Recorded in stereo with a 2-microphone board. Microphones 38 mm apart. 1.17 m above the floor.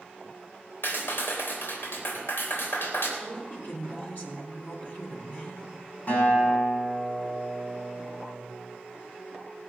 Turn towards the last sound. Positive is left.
turn(degrees=40)  # may be behind; listen again after turning